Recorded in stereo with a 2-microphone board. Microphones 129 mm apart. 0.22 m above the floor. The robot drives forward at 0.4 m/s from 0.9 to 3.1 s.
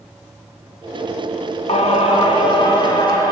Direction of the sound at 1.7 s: 60° left (ahead or behind).